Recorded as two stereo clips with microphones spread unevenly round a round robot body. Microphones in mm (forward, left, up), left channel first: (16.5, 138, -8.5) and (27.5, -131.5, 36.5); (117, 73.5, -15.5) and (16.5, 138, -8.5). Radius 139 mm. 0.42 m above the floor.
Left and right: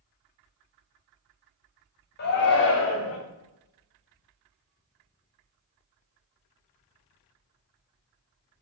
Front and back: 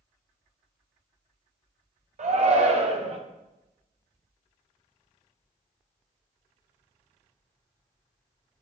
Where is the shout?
135° left, 2.5 m; by 3.2 s 115° left, 2.5 m.